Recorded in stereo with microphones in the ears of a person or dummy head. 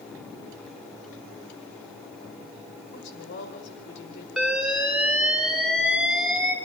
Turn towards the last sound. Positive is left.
turn(degrees=0)  # may be behind; listen again after turning